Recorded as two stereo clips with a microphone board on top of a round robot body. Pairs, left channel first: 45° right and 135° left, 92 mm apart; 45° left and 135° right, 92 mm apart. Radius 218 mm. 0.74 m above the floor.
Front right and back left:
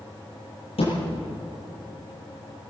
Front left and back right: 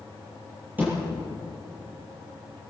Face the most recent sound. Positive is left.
turn(degrees=-65)